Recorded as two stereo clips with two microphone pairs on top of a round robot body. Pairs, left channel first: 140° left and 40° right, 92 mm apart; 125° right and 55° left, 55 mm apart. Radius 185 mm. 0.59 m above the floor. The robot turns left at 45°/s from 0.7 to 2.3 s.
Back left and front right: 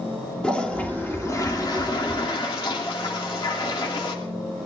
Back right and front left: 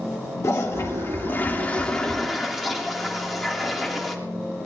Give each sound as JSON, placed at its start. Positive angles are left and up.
{"t": 0.4, "sound": "a toilet flushing", "azimuth_deg": -145, "distance_m": 3.0}